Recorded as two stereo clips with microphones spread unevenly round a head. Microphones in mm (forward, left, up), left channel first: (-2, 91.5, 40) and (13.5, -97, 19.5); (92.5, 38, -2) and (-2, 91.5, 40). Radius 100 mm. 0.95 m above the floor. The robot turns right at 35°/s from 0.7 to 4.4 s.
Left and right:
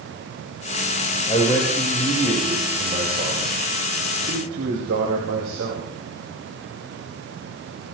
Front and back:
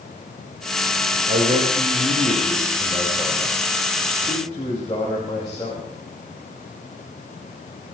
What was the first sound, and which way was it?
A man speaking, 155° left.